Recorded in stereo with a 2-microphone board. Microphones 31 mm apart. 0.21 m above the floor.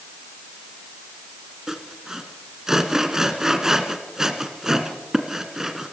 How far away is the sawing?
About 1.9 m.